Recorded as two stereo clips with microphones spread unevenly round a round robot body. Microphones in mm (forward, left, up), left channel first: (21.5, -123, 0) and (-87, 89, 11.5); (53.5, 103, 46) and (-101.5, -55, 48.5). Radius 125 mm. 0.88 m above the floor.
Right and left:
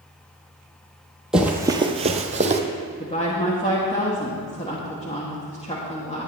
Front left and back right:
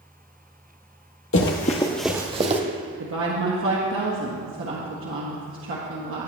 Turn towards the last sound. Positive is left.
turn(degrees=-125)